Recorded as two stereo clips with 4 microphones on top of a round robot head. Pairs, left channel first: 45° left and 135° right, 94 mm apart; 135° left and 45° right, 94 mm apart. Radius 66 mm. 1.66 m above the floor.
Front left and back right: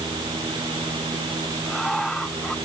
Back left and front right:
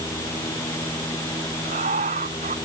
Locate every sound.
1.6 s laughter: 45° right